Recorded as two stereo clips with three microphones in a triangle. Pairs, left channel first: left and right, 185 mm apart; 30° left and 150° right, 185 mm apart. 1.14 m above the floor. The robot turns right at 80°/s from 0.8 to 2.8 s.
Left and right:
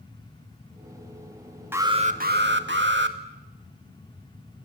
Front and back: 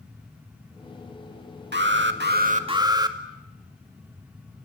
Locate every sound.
1.7 s an alarm: 170° right, 2 m; by 3.2 s 80° right, 2 m